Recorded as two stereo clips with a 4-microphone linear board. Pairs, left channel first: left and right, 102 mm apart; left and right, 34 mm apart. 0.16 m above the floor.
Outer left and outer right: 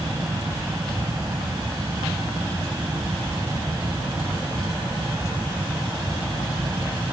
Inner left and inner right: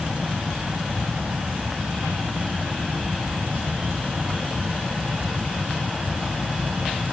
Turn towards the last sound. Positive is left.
No sound to turn to.